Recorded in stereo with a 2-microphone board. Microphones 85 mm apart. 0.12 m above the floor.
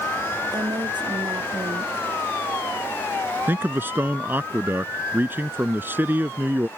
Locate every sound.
0.5 s a woman speaking: 60° right (ahead or behind)
3.5 s a man speaking: 25° right (ahead or behind)